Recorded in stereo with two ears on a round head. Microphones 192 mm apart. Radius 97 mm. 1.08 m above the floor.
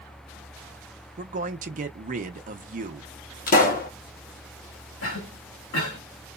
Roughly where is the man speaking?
Right.